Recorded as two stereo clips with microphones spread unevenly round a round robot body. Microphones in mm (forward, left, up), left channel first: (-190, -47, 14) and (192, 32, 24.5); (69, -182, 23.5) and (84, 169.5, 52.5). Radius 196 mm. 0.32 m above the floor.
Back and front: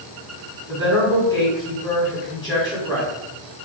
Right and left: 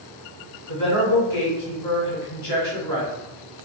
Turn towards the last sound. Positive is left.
turn(degrees=-90)